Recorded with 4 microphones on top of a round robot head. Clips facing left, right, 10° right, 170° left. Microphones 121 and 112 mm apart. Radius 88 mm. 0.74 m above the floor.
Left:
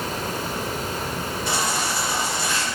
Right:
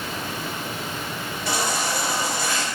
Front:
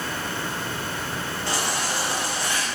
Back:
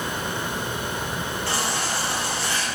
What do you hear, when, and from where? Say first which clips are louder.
0.0 s running water: left 3 dB, back 1 dB; 105° left, 0.9 m
1.5 s a baby crying: right 2 dB, front 1 dB; 85° right, 3.5 m